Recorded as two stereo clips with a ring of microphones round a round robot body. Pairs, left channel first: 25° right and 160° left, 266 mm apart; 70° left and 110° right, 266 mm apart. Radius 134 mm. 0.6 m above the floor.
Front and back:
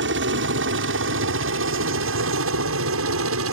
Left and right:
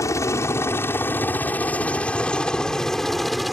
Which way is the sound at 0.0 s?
140° left.